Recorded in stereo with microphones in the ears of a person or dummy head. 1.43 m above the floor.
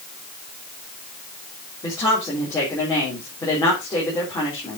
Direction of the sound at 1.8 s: 15° left (ahead or behind).